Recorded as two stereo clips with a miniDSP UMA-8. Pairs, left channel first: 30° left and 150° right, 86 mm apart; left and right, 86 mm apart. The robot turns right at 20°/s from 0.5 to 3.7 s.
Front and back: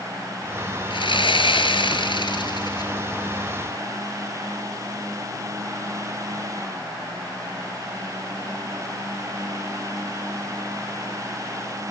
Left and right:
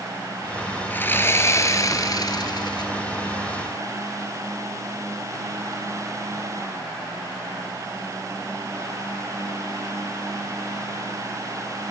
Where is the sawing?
20° left, 2 m; by 2.9 s 60° left, 2 m.